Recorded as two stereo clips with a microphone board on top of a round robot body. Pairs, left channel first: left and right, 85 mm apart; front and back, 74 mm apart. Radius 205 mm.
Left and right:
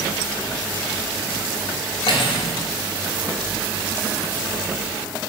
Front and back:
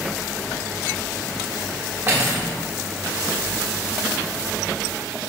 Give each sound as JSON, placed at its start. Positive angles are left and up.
{"t": 2.1, "sound": "cutlery clinking", "azimuth_deg": 110, "distance_m": 1.2}